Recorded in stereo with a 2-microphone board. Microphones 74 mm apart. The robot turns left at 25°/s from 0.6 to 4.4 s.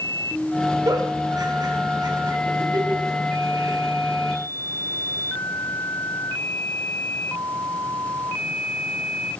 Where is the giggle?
50° right (ahead or behind), 3 m.